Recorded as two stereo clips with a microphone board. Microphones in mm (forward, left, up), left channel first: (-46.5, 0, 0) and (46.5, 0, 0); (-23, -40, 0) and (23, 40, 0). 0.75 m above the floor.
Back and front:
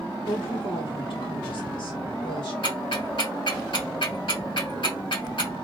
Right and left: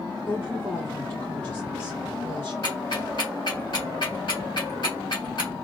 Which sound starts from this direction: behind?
A woman speaking, at 0.2 s.